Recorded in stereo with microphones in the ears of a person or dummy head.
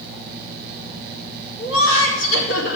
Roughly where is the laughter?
Left.